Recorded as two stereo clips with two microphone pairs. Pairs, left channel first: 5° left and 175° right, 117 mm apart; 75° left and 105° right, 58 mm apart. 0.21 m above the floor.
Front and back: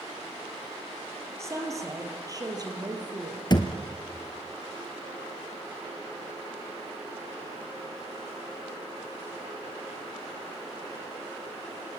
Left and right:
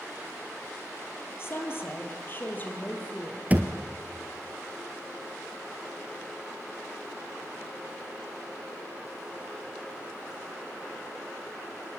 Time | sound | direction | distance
1.4 | a woman speaking | 120° left | 4.5 m
3.5 | a thud | 45° right | 1.8 m